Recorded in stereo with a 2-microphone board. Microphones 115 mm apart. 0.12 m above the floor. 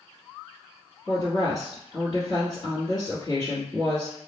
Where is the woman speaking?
35° left (ahead or behind), 1.5 m.